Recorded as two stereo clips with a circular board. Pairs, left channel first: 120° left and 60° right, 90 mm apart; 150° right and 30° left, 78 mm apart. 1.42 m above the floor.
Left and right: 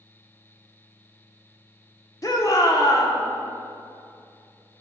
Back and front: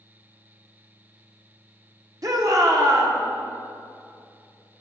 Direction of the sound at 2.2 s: 70° left.